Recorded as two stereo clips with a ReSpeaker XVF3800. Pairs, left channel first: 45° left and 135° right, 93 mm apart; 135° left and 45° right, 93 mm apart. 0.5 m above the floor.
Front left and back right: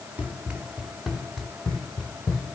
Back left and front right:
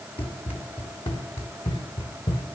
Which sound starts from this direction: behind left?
Running footsteps, at 0.2 s.